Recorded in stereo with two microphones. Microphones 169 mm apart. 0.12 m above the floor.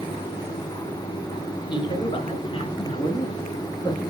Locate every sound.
1.7 s a man speaking: 30° left (ahead or behind), 2 m; by 4.1 s 20° left (ahead or behind), 2.5 m